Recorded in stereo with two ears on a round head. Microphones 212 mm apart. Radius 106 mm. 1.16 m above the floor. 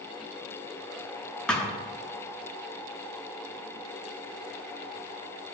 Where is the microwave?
I don't hear a microwave.